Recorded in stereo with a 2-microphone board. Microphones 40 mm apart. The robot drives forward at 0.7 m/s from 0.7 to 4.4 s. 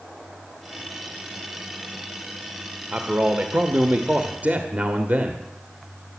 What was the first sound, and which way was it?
A man speaking, 35° right (ahead or behind).